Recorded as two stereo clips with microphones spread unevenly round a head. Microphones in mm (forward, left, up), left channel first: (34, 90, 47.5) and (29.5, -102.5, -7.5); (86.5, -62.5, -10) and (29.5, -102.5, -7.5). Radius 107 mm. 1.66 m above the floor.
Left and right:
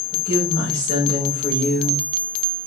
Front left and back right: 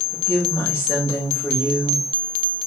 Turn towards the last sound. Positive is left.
turn(degrees=135)